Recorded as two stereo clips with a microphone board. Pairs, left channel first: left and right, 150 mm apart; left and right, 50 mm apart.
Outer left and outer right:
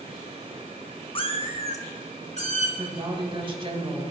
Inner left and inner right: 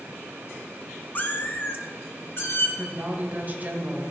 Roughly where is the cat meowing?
Left.